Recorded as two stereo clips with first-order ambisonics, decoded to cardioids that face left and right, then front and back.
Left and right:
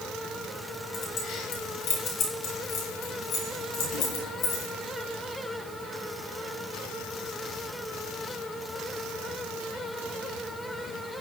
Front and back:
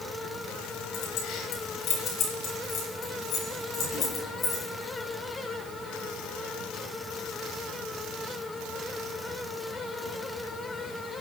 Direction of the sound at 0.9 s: 45° left.